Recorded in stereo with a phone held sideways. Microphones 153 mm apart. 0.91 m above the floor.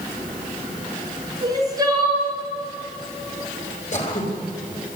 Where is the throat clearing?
55° left (ahead or behind), 4 m.